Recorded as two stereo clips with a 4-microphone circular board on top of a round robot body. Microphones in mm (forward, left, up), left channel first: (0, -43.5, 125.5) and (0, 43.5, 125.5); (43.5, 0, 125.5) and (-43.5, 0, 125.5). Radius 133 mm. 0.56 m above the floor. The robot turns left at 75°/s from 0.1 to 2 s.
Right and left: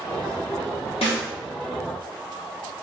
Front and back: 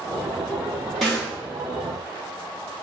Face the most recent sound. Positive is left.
turn(degrees=-160)